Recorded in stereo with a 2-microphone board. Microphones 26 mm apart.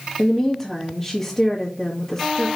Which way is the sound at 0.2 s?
20° left (ahead or behind).